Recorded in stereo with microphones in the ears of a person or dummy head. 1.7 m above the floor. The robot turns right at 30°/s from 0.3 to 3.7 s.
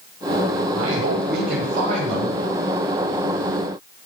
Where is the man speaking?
80° right, 9.5 m; by 2.4 s 30° right, 9.5 m.